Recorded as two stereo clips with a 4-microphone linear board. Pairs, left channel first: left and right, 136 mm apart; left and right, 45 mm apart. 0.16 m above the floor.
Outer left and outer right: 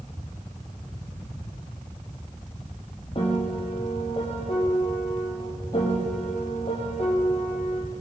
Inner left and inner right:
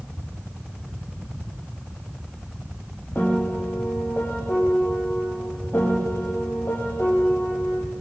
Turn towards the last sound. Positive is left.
turn(degrees=40)  # may be behind; listen again after turning